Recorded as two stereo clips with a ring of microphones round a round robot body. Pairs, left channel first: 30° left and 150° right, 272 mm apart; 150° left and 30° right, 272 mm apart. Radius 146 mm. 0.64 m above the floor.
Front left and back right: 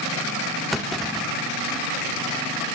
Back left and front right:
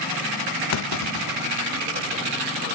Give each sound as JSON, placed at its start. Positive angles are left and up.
{"t": 0.7, "sound": "a clunk", "azimuth_deg": 120, "distance_m": 0.5}